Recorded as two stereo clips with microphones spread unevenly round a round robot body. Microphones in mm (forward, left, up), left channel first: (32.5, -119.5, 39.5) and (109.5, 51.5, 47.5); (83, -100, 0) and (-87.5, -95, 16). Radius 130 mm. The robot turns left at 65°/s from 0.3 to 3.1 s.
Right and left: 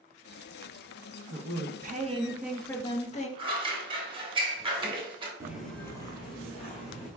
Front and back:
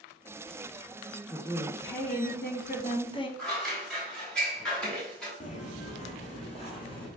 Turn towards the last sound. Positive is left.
turn(degrees=-65)